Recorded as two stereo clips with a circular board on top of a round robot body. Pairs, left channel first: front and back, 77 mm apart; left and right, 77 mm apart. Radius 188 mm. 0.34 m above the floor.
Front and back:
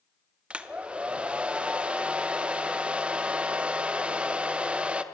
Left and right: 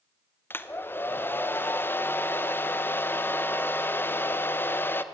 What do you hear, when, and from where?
0.5 s a hair dryer: 120° left, 1.2 m